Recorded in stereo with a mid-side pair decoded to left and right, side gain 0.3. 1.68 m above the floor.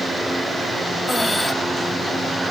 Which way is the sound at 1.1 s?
25° left.